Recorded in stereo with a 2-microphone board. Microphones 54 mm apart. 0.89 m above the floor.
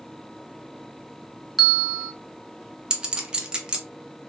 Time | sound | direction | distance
1.6 | a bell | centre (ahead or behind) | 0.6 m
2.9 | a clink | 15° right (ahead or behind) | 0.7 m